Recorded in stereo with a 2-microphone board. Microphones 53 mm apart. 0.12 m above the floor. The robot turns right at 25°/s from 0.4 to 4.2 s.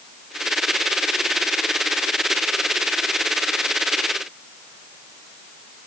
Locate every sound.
Only background noise.